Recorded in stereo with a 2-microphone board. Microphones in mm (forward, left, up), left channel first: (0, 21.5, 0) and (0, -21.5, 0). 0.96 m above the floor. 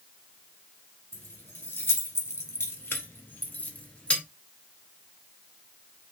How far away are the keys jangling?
About 1.4 m.